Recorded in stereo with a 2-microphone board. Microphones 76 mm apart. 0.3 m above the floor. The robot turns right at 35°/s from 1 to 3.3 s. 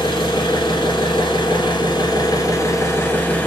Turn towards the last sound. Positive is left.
turn(degrees=155)